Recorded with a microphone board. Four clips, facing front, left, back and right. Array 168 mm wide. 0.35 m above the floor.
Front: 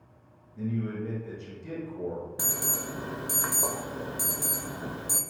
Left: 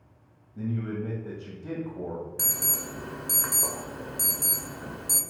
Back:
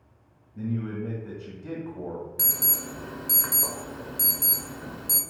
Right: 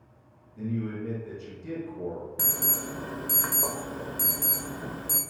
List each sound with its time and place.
0.6 s a man speaking: 135° left, 1.9 m
2.4 s an alarm: 35° right, 0.5 m